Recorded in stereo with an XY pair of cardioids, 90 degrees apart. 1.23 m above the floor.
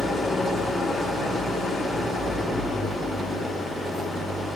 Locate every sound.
0.0 s an engine running: 60° left, 3.5 m